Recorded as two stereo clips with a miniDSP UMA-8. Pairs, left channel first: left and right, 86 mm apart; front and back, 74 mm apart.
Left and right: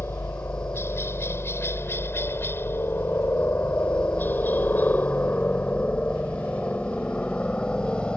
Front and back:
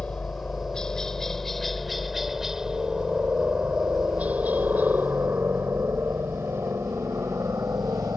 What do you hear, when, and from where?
0.0 s a helicopter: 65° left; by 8.2 s 165° left